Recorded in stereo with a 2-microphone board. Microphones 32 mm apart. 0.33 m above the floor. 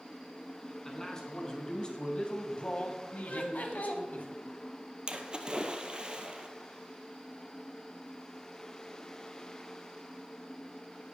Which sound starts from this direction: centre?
A man speaking, at 0.8 s.